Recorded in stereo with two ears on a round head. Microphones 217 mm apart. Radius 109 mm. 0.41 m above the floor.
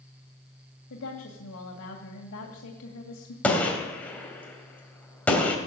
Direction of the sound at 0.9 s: 60° left (ahead or behind).